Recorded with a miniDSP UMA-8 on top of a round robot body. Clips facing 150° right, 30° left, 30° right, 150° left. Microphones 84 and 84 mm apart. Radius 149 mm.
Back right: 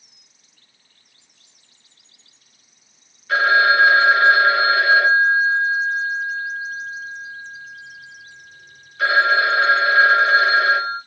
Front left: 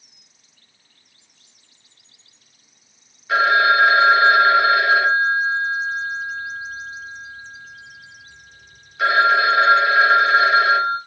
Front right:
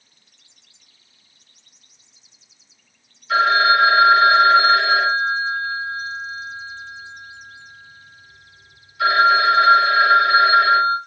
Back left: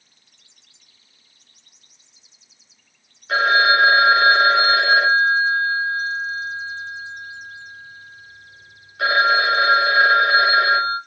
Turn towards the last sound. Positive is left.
turn(degrees=105)